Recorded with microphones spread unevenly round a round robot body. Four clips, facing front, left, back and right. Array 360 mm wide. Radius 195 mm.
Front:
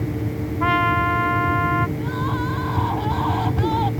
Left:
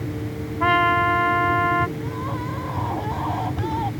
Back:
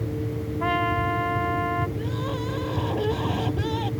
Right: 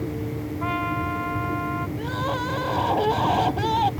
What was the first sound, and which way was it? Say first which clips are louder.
A trumpet: left 9 dB, front 5 dB; 75° left.